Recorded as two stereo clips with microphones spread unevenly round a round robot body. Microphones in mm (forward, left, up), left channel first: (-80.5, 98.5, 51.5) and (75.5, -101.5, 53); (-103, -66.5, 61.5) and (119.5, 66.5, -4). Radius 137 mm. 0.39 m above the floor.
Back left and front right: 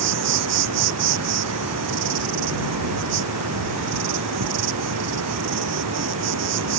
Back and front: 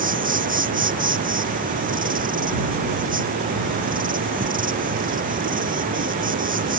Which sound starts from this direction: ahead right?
An insect, at 0.0 s.